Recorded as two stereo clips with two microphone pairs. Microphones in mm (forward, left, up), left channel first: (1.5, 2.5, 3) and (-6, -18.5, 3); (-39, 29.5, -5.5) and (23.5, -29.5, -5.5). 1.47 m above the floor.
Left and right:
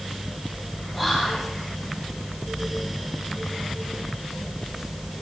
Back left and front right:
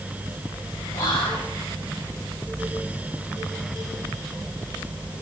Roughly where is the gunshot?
I don't hear a gunshot.